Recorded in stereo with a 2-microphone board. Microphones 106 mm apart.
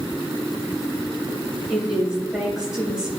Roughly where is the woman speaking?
Centre.